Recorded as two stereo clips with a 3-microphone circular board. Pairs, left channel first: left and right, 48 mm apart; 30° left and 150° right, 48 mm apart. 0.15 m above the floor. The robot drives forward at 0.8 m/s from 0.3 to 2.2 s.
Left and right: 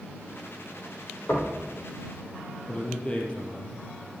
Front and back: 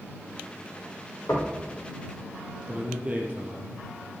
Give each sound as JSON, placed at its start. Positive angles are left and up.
{"t": 1.3, "sound": "knocking", "azimuth_deg": 45, "distance_m": 3.0}
{"t": 2.7, "sound": "a man speaking", "azimuth_deg": 150, "distance_m": 3.5}